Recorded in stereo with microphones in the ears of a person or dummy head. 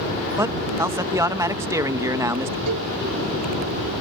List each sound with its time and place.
0.4 s a man speaking: 15° right (ahead or behind)
2.7 s a cowbell: 80° right